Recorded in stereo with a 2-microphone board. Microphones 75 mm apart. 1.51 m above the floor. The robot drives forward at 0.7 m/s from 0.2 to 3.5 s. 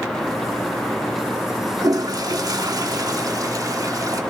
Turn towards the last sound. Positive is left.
turn(degrees=-55)  # may be behind; listen again after turning